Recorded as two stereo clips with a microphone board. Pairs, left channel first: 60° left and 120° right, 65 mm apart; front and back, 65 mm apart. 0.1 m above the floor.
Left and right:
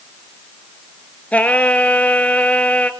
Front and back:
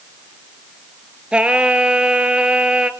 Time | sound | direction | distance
1.3 | singing | 115° left | 0.9 m